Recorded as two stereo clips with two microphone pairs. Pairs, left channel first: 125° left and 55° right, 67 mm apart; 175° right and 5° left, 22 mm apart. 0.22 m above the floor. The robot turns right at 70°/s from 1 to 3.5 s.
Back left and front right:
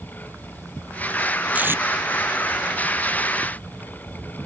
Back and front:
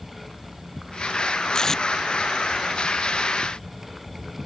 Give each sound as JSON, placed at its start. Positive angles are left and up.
{"t": 1.5, "sound": "tape being pulled", "azimuth_deg": -120}